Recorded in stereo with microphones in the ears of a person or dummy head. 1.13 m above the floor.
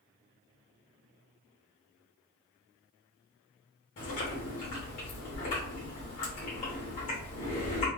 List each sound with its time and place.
4.0 s chewing: 40° left (ahead or behind), 1.4 m